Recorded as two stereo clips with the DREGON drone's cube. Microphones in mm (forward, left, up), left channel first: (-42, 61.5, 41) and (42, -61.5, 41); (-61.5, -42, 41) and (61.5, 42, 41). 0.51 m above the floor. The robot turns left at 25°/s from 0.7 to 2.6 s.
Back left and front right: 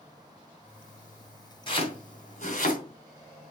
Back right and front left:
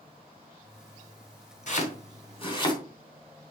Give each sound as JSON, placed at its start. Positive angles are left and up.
{"t": 1.7, "sound": "chopping", "azimuth_deg": 180, "distance_m": 2.5}